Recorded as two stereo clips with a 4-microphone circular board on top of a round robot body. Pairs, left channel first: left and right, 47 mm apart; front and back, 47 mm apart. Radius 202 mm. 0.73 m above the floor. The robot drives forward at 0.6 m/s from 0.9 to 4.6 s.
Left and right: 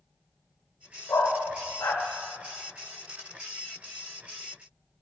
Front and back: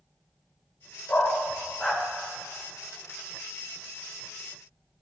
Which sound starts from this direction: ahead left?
A dog barking, at 1.1 s.